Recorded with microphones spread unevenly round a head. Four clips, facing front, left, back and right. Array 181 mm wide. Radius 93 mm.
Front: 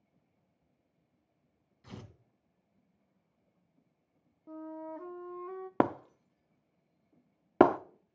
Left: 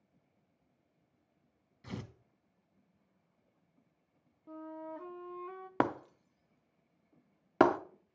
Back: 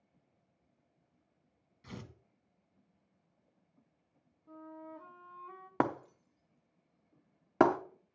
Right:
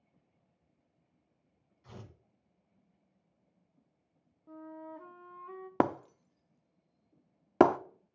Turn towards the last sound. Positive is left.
turn(degrees=-35)